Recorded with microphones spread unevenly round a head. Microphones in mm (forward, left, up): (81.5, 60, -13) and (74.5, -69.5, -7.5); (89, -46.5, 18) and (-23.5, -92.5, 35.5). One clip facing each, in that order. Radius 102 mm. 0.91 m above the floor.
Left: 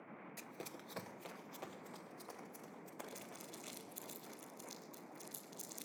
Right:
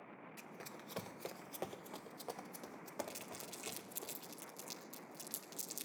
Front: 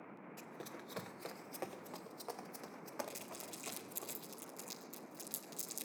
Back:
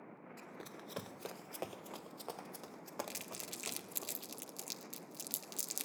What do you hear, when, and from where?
0.4 s running footsteps: 110° left, 1.1 m; by 4.1 s 85° right, 5 m
3.1 s crumpling: 140° right, 2 m